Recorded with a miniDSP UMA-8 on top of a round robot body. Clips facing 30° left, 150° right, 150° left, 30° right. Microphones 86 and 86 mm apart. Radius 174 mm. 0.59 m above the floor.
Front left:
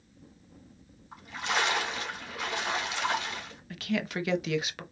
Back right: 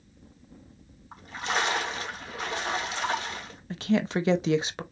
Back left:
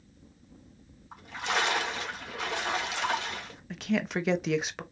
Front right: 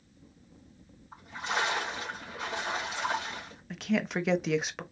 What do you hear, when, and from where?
1.1 s a splash: 155° left, 1.7 m
3.7 s a woman speaking: 120° right, 0.7 m